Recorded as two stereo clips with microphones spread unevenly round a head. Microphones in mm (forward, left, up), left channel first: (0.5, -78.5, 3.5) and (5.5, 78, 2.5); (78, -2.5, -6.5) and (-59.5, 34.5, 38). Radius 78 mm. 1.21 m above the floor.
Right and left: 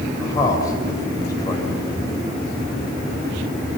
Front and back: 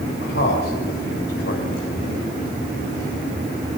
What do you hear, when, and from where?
0.2 s a man speaking: 20° right, 7 m